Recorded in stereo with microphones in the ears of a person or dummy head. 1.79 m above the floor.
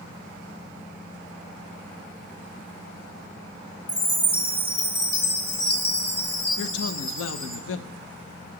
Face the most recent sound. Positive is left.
turn(degrees=75)  # may be behind; listen again after turning